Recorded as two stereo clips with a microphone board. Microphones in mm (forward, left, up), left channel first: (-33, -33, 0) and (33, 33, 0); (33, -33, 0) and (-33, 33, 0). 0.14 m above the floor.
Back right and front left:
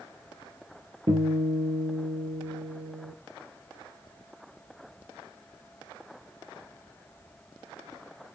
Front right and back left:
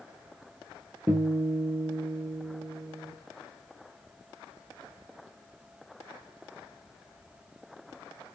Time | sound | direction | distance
1.1 | a guitar | 75° left | 3 m